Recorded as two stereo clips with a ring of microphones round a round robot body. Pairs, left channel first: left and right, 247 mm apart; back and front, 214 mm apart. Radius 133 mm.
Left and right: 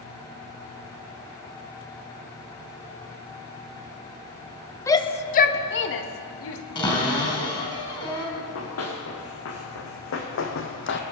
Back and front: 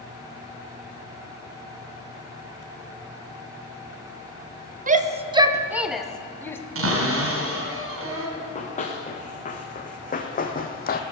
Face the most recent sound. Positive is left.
turn(degrees=135)